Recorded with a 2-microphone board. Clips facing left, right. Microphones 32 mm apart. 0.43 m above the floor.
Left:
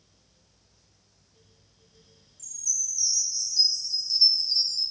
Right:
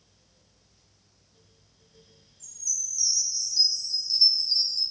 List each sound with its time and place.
2.4 s a chime: 25° right (ahead or behind), 1.3 m